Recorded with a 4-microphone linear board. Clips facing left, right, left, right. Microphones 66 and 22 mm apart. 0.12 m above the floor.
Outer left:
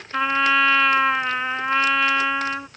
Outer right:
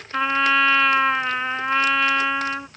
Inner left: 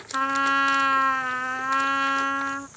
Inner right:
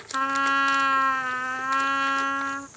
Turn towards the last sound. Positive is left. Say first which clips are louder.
# even, inner left 1 dB
turn(degrees=0)  # may be behind; listen again after turning